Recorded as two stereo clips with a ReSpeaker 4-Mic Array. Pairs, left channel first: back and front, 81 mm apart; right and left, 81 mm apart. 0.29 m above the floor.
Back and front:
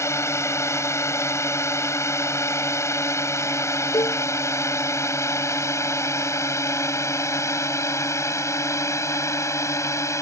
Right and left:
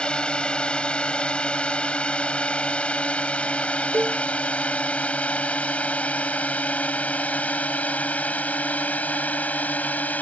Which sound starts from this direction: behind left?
A cowbell, at 3.9 s.